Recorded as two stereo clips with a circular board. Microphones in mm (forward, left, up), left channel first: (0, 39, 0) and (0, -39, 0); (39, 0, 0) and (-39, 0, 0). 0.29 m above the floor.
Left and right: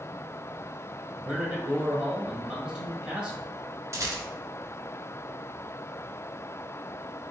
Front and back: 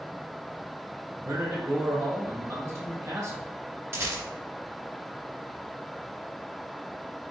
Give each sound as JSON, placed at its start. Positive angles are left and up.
{"t": 1.2, "sound": "a man speaking", "azimuth_deg": -160, "distance_m": 1.5}
{"t": 3.9, "sound": "a rattle", "azimuth_deg": -130, "distance_m": 1.1}